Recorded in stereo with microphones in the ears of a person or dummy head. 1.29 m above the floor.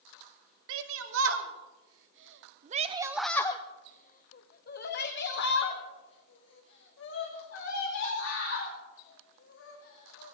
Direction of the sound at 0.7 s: 75° right (ahead or behind).